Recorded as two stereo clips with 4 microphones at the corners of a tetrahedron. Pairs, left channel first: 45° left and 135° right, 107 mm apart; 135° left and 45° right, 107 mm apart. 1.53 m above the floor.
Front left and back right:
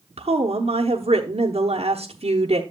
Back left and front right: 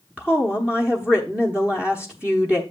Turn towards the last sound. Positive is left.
turn(degrees=-125)